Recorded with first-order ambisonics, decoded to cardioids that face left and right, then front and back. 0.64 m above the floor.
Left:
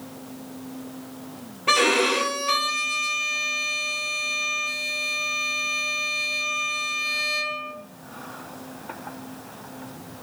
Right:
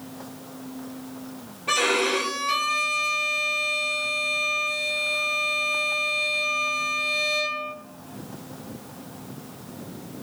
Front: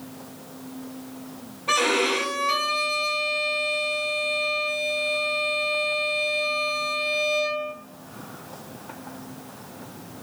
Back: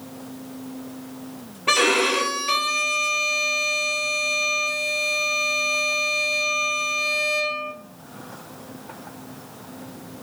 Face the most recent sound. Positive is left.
turn(degrees=145)